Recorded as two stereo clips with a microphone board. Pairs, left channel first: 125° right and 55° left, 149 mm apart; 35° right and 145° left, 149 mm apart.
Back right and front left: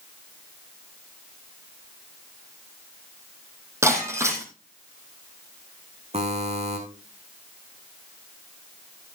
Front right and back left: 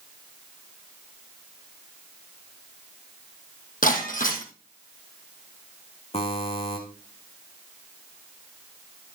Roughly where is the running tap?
I don't hear a running tap.